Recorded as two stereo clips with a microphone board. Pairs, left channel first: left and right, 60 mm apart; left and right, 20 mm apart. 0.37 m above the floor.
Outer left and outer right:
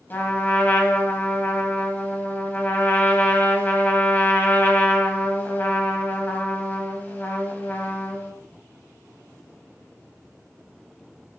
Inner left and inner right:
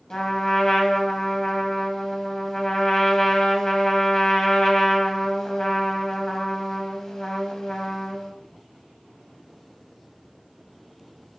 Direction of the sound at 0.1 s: 35° left (ahead or behind).